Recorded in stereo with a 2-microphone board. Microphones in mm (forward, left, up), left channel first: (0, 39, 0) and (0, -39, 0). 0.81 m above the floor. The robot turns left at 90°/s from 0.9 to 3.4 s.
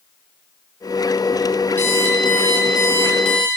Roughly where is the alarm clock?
Behind left.